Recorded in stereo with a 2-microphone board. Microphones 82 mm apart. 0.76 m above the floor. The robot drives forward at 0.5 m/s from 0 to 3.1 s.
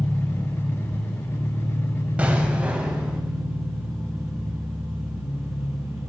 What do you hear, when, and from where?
0.0 s an engine running: 10° left (ahead or behind), 1.0 m; by 6.1 s 5° left (ahead or behind), 2.5 m
2.2 s an explosion: 15° right (ahead or behind), 0.7 m; by 3.2 s 10° right (ahead or behind), 1.0 m